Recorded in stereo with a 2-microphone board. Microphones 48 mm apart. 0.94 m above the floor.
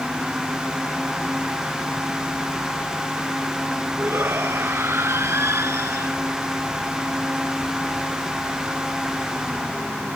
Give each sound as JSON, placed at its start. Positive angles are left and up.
{"t": 4.0, "sound": "a shout", "side_deg": -60}